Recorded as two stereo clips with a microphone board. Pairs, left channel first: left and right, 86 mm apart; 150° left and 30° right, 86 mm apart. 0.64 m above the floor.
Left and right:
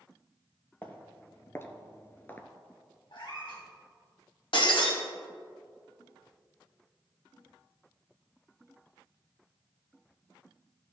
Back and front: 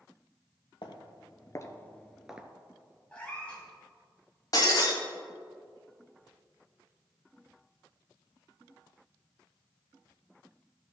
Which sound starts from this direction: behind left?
Footsteps, at 0.8 s.